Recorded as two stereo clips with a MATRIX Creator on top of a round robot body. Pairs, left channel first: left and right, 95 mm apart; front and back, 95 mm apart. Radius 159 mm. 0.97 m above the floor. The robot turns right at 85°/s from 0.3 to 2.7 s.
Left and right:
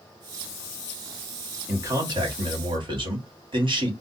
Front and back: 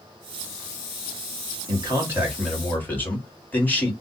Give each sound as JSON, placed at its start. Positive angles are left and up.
{"t": 1.7, "sound": "a man speaking", "azimuth_deg": -155, "distance_m": 1.5}